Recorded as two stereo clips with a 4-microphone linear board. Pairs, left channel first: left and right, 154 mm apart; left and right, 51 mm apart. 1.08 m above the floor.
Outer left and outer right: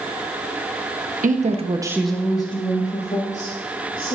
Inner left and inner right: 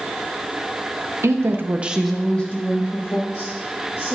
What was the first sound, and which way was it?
A woman speaking, 60° right (ahead or behind).